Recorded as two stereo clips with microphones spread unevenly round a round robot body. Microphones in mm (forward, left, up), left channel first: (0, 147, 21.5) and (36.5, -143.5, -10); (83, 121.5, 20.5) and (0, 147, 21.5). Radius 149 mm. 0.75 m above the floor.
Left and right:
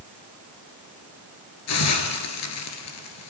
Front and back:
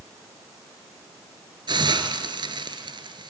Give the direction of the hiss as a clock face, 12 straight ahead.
8 o'clock.